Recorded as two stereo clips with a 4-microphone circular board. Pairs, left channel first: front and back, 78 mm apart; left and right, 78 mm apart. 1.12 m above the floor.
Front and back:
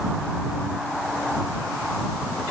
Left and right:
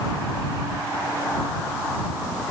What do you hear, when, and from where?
Only background noise.